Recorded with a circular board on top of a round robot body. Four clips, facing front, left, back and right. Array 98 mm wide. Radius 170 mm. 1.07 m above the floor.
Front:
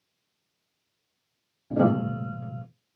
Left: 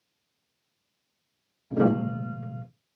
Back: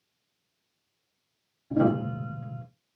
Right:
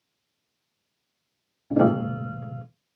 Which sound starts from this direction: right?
A piano, at 1.7 s.